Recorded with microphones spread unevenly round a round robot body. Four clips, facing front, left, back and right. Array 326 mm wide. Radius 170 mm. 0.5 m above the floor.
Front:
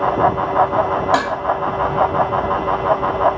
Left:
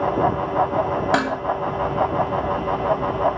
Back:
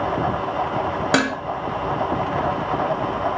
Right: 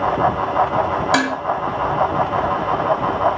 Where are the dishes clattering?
155° left, 1.4 m.